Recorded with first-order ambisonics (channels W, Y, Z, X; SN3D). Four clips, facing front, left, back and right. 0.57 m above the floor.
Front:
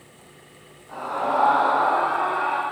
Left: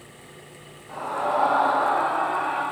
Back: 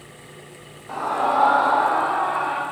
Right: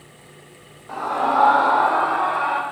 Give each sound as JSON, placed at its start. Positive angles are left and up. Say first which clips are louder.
{"t": 0.9, "sound": "a scream", "louder": "right 5 dB, back 3 dB", "azimuth_deg": -145, "distance_m": 1.8}